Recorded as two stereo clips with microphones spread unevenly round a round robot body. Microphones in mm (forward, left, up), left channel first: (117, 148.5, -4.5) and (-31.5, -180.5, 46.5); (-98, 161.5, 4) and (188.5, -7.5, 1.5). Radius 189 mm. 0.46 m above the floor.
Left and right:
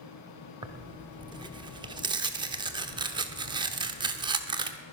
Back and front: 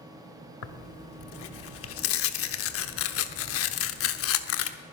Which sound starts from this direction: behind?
Tearing paper, at 0.6 s.